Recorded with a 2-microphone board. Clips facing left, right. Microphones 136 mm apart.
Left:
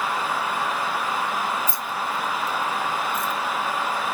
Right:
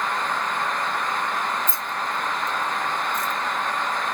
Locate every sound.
1.7 s keys jangling: 20° right (ahead or behind), 0.6 m; by 3.3 s 30° left (ahead or behind), 0.7 m